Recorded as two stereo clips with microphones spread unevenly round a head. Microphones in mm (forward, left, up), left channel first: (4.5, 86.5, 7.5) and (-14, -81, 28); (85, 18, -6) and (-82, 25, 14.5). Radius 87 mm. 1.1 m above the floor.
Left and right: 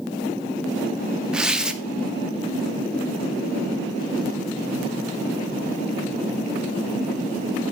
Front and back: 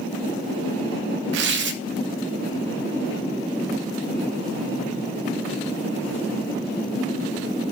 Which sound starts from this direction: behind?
Tearing paper, at 1.3 s.